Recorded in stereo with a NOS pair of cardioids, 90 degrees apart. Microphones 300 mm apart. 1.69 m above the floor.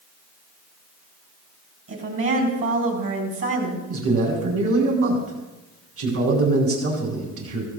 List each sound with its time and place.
1.9 s a woman speaking: 45° right, 3.5 m
3.9 s a man speaking: 50° right, 3.5 m